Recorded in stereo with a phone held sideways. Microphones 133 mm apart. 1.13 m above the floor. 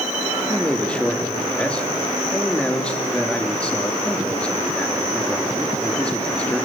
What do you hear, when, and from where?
0.5 s a man speaking: 10° left (ahead or behind), 2 m